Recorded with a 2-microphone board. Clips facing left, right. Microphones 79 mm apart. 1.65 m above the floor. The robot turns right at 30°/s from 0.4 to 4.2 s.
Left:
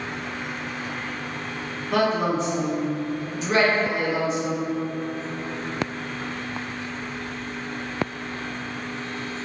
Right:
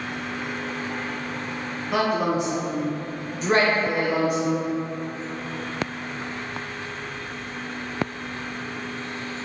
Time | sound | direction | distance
1.9 | a woman speaking | 175° right | 0.8 m